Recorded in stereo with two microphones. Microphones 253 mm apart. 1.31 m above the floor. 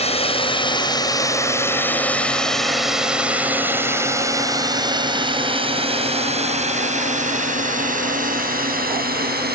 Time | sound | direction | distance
0.0 | a drone | 25° left (ahead or behind) | ?